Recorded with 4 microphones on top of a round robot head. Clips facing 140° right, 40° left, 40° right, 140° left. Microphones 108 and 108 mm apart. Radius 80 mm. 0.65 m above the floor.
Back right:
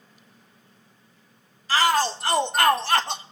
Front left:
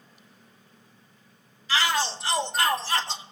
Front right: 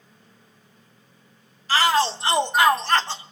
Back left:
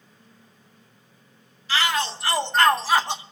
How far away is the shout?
About 1.3 m.